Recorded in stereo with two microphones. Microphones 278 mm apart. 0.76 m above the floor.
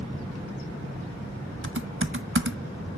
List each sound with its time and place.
1.6 s typing on a keyboard: 45° right (ahead or behind), 1.0 m